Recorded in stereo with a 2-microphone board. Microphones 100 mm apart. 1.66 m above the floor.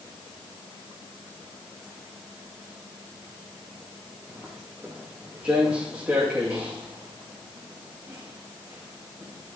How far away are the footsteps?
About 5 m.